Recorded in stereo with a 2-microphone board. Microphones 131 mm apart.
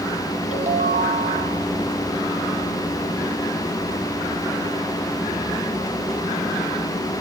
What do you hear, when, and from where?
0.5 s a ringtone: 60° right (ahead or behind), 1.8 m